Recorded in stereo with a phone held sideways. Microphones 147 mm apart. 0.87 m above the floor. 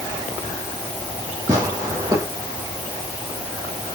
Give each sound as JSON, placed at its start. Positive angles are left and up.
{"t": 1.5, "sound": "tearing paper", "side_deg": -25, "distance_m": 9.0}